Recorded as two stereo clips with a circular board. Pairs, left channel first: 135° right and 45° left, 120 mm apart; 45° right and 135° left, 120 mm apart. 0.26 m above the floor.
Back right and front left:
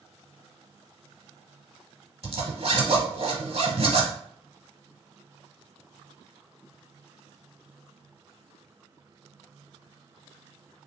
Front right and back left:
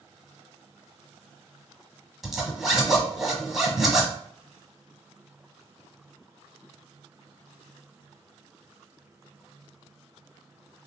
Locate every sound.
2.2 s a zipper: 50° left, 0.8 m